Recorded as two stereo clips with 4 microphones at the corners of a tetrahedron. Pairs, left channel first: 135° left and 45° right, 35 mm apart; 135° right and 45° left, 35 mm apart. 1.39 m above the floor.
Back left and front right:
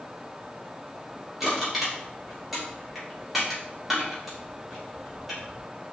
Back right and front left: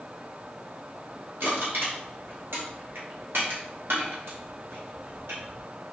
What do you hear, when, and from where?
1.4 s crushing: 40° left, 3 m